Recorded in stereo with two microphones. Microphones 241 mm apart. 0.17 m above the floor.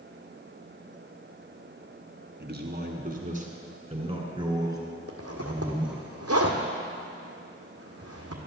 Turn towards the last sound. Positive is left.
turn(degrees=-75)  # may be behind; listen again after turning